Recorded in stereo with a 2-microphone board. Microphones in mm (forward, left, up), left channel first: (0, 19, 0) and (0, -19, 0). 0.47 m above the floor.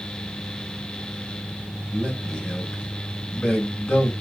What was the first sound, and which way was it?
A man speaking, 20° left (ahead or behind).